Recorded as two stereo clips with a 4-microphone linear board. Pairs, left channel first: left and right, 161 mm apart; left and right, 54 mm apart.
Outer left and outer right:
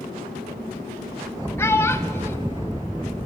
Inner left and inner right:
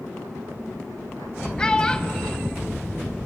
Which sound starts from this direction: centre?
A child speaking, at 1.6 s.